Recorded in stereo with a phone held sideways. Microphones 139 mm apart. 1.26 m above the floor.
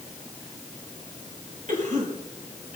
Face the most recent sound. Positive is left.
turn(degrees=-65)  # may be behind; listen again after turning